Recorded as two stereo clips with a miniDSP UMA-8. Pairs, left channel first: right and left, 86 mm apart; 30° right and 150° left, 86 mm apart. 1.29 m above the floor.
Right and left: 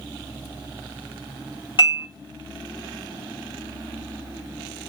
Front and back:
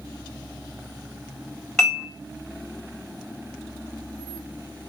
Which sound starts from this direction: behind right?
Dishes clattering, at 1.8 s.